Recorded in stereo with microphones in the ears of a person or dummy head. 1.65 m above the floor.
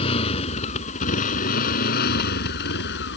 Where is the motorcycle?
35° left (ahead or behind); by 3.2 s 70° left (ahead or behind).